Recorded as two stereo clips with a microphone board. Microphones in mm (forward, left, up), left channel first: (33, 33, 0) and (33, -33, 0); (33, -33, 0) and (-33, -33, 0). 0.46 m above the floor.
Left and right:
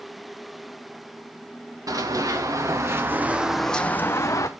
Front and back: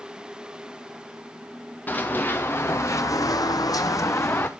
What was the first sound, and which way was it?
Running footsteps, 65° right.